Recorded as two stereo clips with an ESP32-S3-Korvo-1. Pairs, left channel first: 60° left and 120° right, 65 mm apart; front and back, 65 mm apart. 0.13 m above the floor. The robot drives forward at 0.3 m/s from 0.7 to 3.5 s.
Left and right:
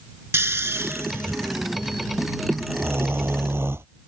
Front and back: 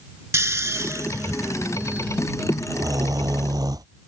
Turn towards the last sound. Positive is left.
turn(degrees=-170)